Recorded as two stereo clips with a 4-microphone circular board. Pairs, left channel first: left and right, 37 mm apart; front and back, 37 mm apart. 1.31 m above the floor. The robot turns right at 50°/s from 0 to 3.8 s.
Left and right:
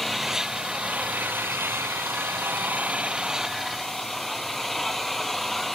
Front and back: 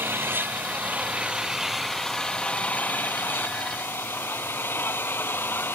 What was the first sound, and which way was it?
An engine running, 175° left.